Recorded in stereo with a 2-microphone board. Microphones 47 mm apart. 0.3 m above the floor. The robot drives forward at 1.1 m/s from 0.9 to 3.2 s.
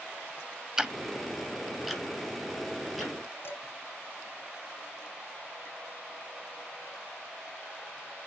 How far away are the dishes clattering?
About 3.5 m.